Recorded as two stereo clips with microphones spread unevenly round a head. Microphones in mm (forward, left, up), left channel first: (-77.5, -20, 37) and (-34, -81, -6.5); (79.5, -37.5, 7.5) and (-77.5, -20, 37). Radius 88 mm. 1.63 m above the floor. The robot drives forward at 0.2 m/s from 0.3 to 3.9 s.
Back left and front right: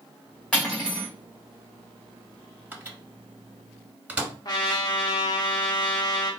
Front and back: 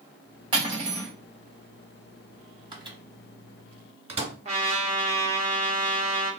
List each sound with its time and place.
0.5 s cutlery clinking: 145° left, 1.1 m; by 1.1 s 150° left, 1.2 m
2.7 s a microwave: 125° right, 1.0 m; by 4.3 s 135° right, 1.2 m
4.5 s a trumpet: 125° left, 0.7 m